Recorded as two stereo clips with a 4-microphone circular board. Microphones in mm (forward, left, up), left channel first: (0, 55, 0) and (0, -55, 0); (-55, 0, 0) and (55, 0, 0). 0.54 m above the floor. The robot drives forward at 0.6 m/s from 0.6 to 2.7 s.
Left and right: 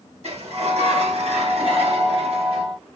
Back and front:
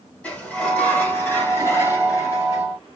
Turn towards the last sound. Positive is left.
turn(degrees=-125)